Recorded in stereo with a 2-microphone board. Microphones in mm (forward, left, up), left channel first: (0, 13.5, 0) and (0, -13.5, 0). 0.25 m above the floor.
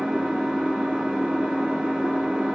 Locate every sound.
0.0 s an engine running: 60° right (ahead or behind), 1.7 m